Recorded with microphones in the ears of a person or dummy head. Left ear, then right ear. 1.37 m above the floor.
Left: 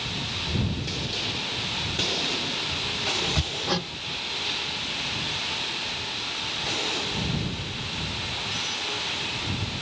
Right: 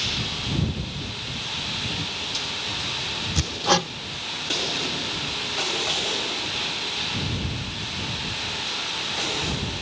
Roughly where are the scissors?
I don't hear scissors.